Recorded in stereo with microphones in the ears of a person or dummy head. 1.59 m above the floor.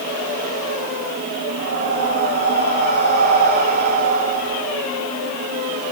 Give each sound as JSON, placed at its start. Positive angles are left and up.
{"t": 1.6, "sound": "breathing", "side_deg": -35, "distance_m": 3.0}